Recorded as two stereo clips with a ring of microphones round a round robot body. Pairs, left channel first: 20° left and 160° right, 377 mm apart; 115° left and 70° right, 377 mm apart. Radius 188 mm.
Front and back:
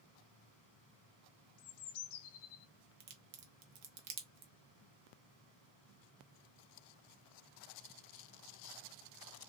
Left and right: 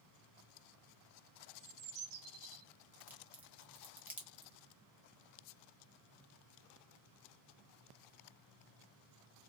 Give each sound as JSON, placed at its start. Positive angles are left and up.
{"t": 1.6, "sound": "a bird", "azimuth_deg": -15, "distance_m": 0.5}
{"t": 3.0, "sound": "a crack", "azimuth_deg": -150, "distance_m": 0.9}